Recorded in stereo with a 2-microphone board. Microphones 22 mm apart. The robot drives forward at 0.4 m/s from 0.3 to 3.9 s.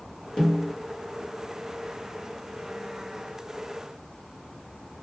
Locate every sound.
0.4 s a snare drum: 35° left (ahead or behind), 1.4 m